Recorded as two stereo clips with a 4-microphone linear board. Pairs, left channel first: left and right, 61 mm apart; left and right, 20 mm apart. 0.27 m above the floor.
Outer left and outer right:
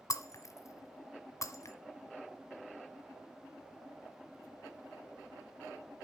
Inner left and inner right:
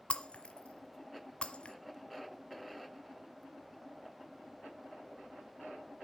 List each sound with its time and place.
0.1 s breaking glass: 60° left (ahead or behind), 1.2 m